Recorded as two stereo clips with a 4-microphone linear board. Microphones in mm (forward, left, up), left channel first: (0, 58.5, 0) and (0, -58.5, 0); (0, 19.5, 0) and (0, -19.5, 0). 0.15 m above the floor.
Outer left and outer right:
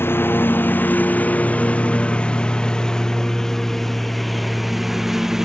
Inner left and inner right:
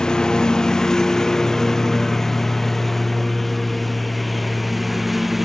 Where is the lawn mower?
20° left (ahead or behind); by 5.5 s 5° right (ahead or behind).